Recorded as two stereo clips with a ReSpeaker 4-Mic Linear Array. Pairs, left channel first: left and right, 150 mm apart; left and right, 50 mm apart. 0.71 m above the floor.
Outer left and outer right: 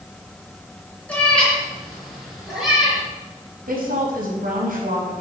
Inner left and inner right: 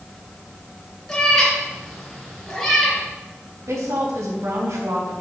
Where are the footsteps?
No footsteps in this recording.